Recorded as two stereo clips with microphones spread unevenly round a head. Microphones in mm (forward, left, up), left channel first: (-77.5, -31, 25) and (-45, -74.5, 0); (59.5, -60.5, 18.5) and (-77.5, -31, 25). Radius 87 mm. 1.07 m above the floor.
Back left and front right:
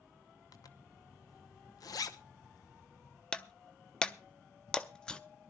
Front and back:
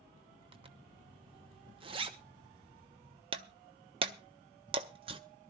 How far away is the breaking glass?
About 0.5 m.